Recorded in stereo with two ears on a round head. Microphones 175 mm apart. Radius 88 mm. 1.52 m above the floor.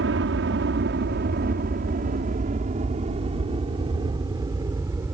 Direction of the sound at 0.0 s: 65° right (ahead or behind).